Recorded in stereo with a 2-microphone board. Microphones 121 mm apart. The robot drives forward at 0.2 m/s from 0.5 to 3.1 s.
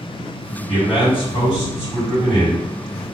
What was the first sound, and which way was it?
A man speaking, 50° left (ahead or behind).